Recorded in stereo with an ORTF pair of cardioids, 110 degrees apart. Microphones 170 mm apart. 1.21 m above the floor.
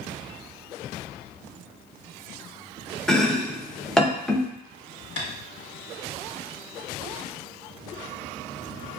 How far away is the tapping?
About 1.6 m.